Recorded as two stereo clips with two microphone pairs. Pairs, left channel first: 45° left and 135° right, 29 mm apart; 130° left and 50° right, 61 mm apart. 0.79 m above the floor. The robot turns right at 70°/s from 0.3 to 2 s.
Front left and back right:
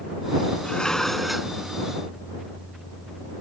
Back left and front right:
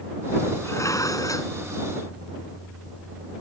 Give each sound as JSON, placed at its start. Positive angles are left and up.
{"t": 0.7, "sound": "dishes clattering", "azimuth_deg": 90}